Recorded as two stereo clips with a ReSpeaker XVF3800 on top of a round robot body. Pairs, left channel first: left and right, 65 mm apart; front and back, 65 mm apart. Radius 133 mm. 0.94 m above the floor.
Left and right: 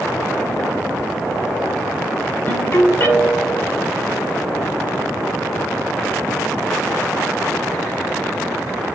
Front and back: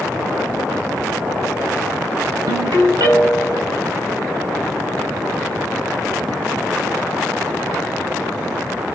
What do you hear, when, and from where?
2.5 s a ringtone: 150° left, 4 m